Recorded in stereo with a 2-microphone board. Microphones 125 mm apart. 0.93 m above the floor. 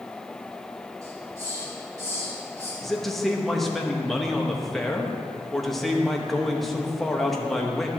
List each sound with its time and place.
1.0 s a hiss: 30° right (ahead or behind), 3 m
2.8 s a man speaking: centre (ahead or behind), 0.9 m